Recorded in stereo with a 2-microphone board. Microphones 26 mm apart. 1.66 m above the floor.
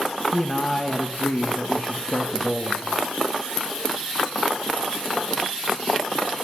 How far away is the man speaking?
About 1.4 m.